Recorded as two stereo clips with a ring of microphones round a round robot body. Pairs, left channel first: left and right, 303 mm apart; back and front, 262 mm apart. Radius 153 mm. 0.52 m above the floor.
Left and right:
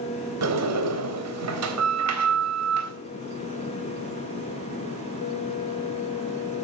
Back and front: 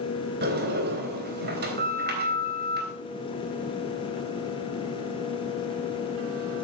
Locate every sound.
0.4 s a sliding door: 55° right, 3.5 m